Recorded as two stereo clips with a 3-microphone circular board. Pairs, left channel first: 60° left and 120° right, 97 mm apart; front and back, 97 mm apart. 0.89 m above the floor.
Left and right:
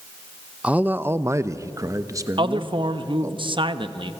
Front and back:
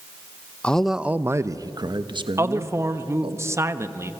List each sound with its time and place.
0.6 s a man speaking: 65° right, 0.6 m; by 3.4 s 175° right, 1.7 m
2.4 s a man speaking: 125° right, 1.1 m